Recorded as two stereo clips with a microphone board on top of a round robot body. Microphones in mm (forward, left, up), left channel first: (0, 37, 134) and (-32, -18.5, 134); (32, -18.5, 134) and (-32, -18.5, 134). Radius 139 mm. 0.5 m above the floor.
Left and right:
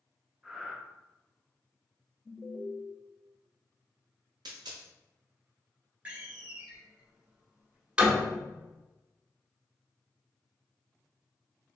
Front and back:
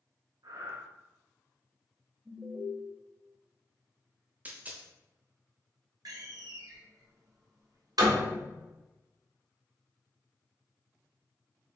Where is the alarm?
105° left, 0.8 m.